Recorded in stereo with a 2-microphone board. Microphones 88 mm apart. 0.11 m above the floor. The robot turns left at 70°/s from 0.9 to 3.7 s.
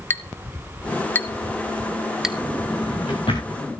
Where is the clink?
25° left (ahead or behind), 0.7 m; by 2.4 s 10° right (ahead or behind), 0.7 m.